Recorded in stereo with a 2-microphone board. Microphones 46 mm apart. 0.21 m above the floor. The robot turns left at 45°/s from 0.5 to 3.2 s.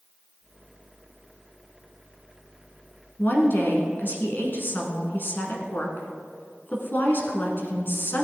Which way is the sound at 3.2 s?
50° left (ahead or behind).